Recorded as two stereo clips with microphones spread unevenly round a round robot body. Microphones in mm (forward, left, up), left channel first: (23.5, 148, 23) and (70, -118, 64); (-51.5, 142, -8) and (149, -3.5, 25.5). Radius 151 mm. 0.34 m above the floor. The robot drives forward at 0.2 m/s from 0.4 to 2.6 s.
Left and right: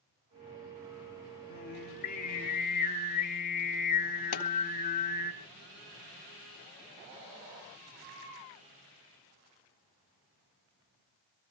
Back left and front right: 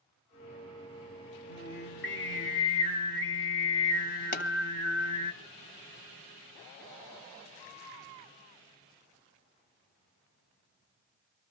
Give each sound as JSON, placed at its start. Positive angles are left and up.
{"t": 1.5, "sound": "singing", "azimuth_deg": 135, "distance_m": 1.3}
{"t": 4.3, "sound": "a pop", "azimuth_deg": 100, "distance_m": 3.0}